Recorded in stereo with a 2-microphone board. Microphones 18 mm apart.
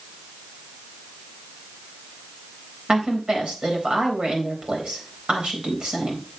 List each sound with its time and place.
2.9 s a woman speaking: 70° right (ahead or behind), 3.5 m